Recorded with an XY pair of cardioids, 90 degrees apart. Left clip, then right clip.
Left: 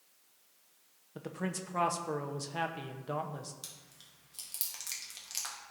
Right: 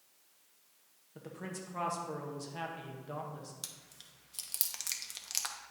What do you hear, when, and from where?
1.1 s a man speaking: 50° left, 0.8 m
3.6 s chewing: 45° right, 0.9 m